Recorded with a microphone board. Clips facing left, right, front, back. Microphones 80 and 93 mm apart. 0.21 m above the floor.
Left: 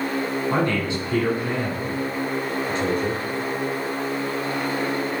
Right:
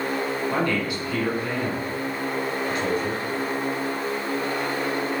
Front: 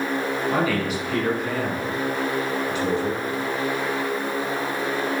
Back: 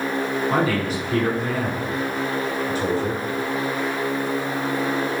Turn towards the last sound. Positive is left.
turn(degrees=140)